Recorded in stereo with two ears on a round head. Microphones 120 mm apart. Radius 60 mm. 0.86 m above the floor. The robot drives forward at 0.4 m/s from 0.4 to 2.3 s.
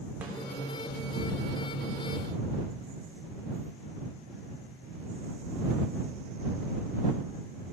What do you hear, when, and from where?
0.2 s a snare drum: 10° right (ahead or behind), 2.5 m